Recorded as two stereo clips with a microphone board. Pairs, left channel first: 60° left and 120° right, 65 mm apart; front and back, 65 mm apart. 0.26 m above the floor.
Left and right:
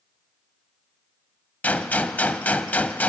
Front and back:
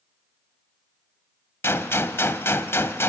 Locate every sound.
1.6 s a gunshot: 10° left, 0.8 m